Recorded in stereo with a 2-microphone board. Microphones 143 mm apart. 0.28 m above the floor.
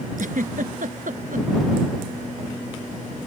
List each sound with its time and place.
0.2 s a giggle: 75° right (ahead or behind)